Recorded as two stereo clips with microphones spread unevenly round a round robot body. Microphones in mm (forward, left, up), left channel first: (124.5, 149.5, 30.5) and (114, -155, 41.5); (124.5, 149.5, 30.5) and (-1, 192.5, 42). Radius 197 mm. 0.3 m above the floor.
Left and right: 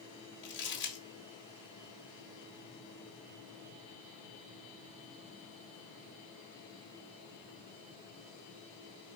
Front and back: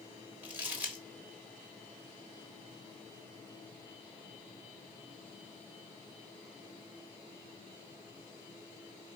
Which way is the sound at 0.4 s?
80° left.